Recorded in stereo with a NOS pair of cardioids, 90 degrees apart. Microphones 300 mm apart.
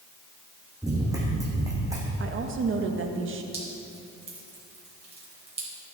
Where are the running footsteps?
10° right, 4.5 m.